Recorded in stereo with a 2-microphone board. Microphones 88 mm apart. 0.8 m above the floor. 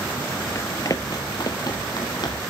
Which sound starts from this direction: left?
Running footsteps, at 0.6 s.